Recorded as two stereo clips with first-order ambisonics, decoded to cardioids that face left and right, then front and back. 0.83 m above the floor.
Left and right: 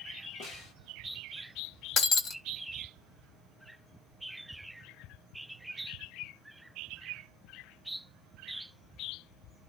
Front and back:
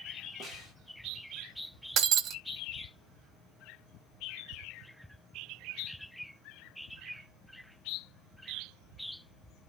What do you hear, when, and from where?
0.4 s a snare drum: 115° left, 2.5 m
2.0 s breaking glass: 135° left, 0.8 m